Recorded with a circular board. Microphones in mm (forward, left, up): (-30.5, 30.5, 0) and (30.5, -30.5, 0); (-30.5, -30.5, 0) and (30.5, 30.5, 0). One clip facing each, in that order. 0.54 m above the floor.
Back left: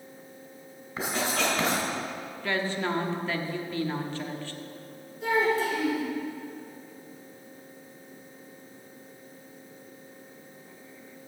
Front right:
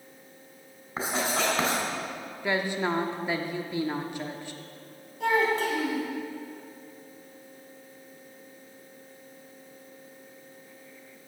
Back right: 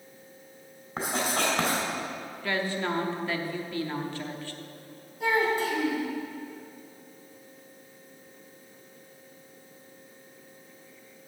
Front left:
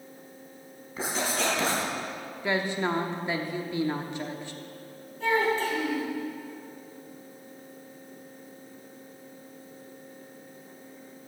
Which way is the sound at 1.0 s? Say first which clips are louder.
Front right 1 dB, back right 1 dB; 100° right.